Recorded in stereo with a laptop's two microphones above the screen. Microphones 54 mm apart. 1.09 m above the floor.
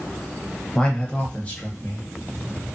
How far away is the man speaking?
About 0.6 m.